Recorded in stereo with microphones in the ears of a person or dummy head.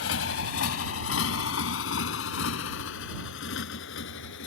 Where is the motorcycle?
75° left (ahead or behind); by 4.5 s 70° left (ahead or behind).